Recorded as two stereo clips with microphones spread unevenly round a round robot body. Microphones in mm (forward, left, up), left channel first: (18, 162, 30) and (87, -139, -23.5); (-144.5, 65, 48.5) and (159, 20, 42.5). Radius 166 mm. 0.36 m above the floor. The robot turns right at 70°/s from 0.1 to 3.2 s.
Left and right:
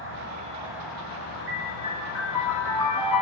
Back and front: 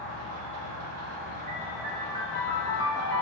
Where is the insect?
50° right, 0.9 m; by 3.2 s 170° left, 0.9 m.